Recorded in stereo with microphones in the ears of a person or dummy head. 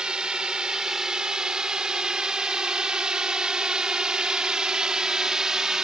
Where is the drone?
10° right (ahead or behind); by 5.8 s 5° right (ahead or behind).